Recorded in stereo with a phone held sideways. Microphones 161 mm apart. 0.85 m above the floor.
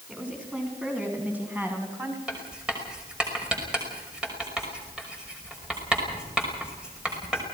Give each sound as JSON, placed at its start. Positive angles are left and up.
{"t": 0.1, "sound": "a woman speaking", "side_deg": -10, "distance_m": 7.0}
{"t": 2.3, "sound": "writing", "side_deg": -5, "distance_m": 5.5}